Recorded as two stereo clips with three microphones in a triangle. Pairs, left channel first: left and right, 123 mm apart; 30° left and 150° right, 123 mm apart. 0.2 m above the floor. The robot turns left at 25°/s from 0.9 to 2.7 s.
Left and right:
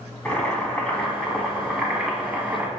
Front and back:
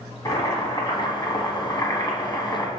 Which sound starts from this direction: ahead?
Boiling, at 0.2 s.